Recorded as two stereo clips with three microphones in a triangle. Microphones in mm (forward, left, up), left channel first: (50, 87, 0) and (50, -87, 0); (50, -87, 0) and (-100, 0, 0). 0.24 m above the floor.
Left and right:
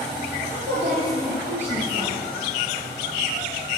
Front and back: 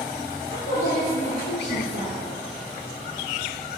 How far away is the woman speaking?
About 5.5 m.